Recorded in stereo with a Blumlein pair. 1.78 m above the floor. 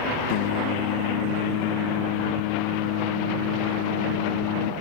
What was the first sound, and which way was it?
Singing, 45° left.